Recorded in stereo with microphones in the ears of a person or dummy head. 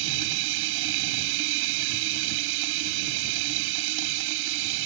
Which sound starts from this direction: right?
Running water, at 0.0 s.